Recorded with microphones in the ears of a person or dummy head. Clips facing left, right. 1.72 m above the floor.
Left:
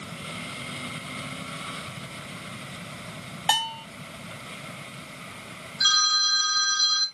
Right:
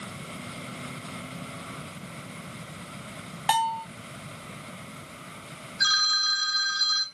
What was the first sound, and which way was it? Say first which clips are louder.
A bell: right 3 dB; 5° left (ahead or behind).